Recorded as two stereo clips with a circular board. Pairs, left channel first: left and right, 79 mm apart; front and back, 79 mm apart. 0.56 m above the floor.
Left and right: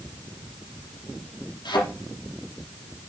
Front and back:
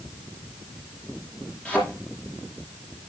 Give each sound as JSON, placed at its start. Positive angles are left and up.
{"t": 1.6, "sound": "a thud", "azimuth_deg": 75, "distance_m": 5.0}